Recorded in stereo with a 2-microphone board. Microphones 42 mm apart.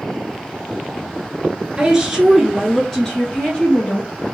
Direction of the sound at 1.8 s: 15° right (ahead or behind).